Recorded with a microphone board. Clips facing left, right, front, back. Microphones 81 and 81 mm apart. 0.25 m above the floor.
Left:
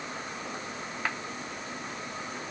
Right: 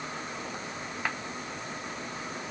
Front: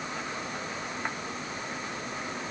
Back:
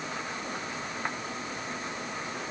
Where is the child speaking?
I don't hear a child speaking.